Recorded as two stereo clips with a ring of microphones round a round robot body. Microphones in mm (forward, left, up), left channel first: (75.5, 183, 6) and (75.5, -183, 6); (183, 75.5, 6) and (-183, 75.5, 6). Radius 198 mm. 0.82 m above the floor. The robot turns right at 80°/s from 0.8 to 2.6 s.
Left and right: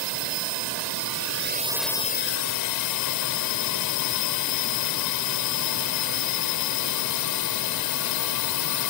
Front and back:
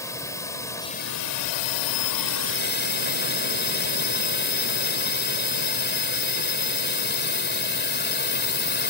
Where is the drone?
85° right; by 8.9 s 60° left.